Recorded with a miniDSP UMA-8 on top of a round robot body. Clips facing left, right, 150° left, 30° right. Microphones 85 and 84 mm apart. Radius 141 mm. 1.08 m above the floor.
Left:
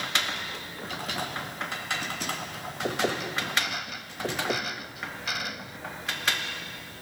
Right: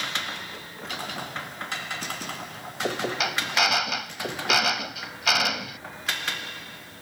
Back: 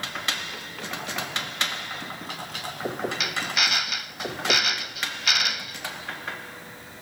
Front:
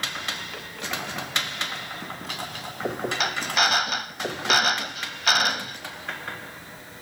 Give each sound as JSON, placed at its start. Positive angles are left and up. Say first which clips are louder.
{"t": 3.2, "sound": "a drill", "louder": "right 5 dB, front 4 dB", "azimuth_deg": -85}